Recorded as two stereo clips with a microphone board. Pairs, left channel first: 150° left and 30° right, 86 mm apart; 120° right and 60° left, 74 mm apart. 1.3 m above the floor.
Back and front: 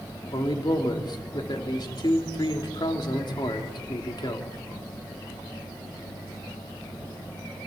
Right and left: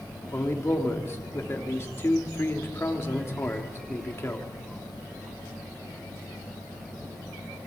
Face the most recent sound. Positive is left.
turn(degrees=-175)